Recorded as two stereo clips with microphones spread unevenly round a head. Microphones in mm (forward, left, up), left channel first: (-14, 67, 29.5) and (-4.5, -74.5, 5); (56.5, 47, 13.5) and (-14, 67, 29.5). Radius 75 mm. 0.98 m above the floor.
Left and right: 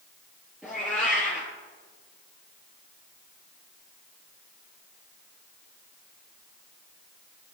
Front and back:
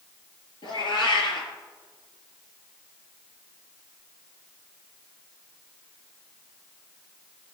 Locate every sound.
0.6 s a cat meowing: straight ahead, 4.5 m